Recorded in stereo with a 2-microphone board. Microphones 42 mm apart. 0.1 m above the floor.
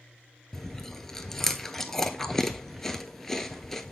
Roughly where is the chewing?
Centre.